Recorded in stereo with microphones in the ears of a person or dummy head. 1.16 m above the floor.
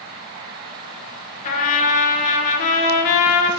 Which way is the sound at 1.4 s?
40° left (ahead or behind).